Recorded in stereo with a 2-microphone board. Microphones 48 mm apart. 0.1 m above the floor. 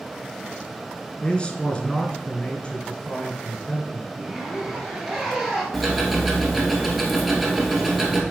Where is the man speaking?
20° left (ahead or behind), 1.1 m.